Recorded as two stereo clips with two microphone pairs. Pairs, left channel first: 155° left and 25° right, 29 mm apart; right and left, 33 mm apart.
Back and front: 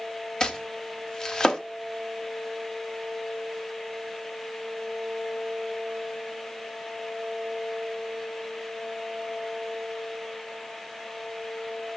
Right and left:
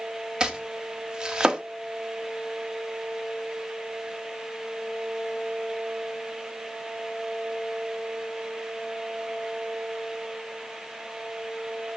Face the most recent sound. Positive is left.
turn(degrees=125)